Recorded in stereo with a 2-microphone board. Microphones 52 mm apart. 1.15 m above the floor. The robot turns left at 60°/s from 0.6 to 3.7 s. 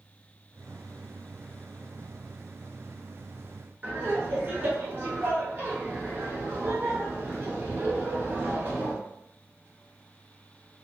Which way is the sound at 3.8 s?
40° right (ahead or behind).